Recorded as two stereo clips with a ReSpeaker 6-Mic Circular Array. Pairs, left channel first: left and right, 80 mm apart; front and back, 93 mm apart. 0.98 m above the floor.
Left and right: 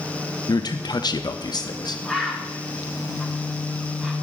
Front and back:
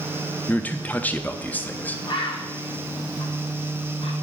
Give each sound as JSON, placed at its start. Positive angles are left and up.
{"t": 0.5, "sound": "a man speaking", "azimuth_deg": 70, "distance_m": 0.6}
{"t": 2.0, "sound": "a bird", "azimuth_deg": 0, "distance_m": 1.5}